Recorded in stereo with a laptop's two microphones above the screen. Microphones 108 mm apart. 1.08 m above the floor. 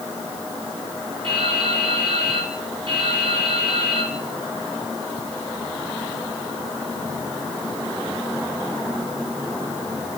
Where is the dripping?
50° right (ahead or behind), 2.5 m.